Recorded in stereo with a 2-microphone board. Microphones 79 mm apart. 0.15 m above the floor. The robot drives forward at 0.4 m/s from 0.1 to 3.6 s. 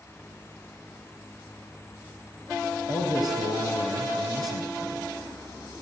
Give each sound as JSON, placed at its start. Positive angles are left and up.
{"t": 2.9, "sound": "a man speaking", "side_deg": -50, "distance_m": 2.0}